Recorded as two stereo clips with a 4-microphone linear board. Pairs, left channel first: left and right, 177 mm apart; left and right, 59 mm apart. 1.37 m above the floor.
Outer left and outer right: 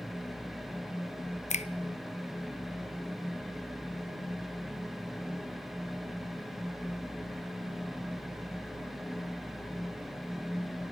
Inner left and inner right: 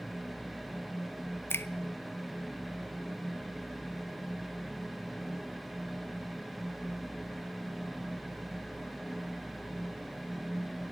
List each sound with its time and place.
1.5 s a finger snap: 45° left (ahead or behind), 0.6 m